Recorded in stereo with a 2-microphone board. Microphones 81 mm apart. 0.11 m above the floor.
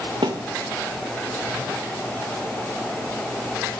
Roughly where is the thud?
Right.